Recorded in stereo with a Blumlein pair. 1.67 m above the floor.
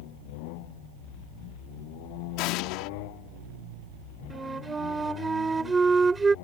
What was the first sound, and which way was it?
An explosion, 40° left.